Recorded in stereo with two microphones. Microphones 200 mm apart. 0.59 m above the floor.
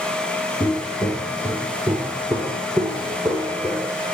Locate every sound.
0.6 s footsteps: 10° left (ahead or behind), 1.1 m; by 3.9 s 5° left (ahead or behind), 3 m